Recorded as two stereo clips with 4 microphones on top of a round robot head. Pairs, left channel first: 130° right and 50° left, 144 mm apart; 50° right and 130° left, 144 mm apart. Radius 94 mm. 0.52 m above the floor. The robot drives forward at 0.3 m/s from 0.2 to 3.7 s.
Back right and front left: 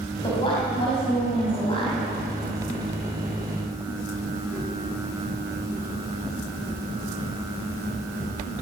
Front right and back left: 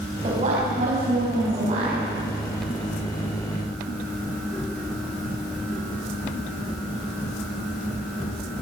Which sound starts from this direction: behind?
A woman speaking, at 0.2 s.